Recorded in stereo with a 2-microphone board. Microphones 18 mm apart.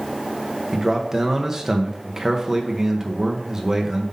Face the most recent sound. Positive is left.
turn(degrees=-35)  # may be behind; listen again after turning